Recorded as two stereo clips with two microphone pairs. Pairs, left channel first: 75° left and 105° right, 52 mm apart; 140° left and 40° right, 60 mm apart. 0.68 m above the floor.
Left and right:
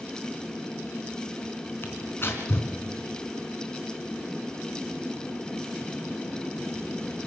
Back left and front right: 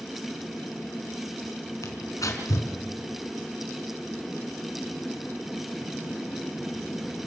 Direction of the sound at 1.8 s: 120° left.